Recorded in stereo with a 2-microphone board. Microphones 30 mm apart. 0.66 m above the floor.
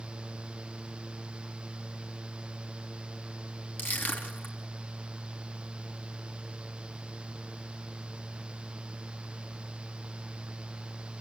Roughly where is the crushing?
Left.